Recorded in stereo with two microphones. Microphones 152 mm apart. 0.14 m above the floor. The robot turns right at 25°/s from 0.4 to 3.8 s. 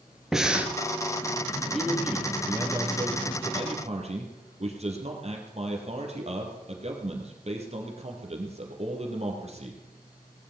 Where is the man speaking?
Straight behind, 3.5 m; by 9.8 s 125° right, 3.5 m.